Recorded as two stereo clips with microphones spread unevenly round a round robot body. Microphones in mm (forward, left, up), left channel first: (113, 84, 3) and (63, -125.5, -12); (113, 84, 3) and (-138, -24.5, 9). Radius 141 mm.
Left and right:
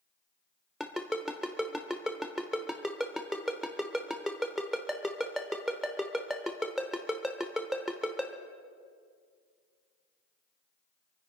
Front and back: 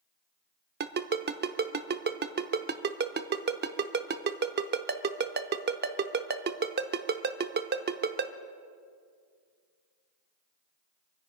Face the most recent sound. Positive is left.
turn(degrees=170)